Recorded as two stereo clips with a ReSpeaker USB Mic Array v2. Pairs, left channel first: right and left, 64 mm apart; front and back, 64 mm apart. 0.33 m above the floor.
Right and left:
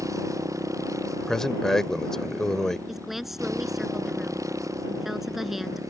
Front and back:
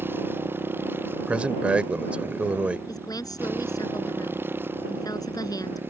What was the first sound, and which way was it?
A motorcycle, 125° left.